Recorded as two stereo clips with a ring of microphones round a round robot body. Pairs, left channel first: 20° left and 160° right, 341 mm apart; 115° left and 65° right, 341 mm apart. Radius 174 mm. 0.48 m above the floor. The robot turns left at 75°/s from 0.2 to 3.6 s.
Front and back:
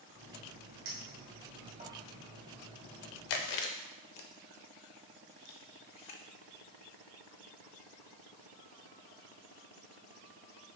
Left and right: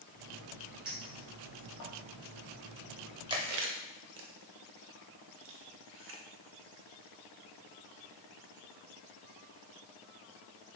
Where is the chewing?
10° left, 0.6 m; by 6.2 s 15° right, 0.6 m.